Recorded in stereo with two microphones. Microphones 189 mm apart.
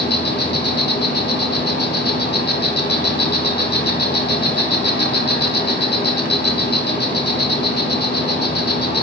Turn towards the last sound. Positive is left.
turn(degrees=60)  # may be behind; listen again after turning